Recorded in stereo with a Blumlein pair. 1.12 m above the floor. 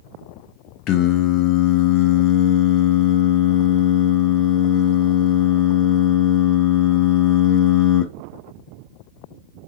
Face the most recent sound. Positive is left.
turn(degrees=35)